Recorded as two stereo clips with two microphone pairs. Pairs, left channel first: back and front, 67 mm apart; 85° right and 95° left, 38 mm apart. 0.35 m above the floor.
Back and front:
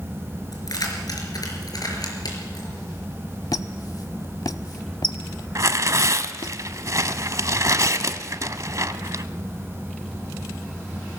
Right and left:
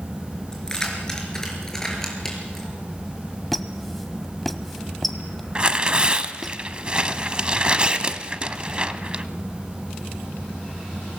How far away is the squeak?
About 0.7 m.